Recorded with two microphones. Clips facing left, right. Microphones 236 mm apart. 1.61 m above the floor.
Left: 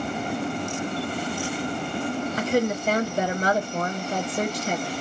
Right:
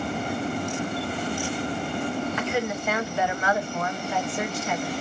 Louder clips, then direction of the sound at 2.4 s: Left 4 dB; 40° left (ahead or behind).